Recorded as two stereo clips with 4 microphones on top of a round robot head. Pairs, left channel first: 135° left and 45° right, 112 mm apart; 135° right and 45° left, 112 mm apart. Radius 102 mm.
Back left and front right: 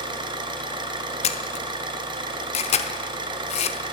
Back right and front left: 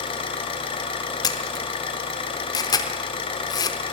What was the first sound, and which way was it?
An engine running, 95° right.